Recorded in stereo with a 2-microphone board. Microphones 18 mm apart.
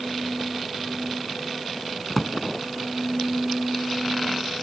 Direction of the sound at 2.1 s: 5° left (ahead or behind).